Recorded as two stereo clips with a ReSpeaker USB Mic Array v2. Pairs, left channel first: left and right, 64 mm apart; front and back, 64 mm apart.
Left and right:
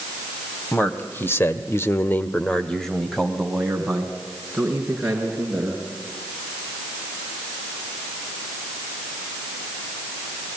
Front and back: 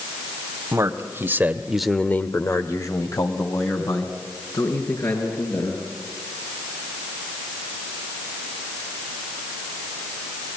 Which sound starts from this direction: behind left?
A man speaking, at 0.7 s.